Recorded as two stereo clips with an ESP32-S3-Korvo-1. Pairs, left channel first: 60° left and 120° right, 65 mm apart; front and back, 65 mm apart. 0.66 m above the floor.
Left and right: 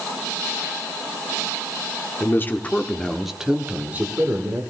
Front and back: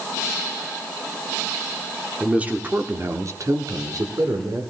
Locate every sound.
2.2 s a man speaking: 110° left, 1.7 m; by 4.6 s 165° right, 2 m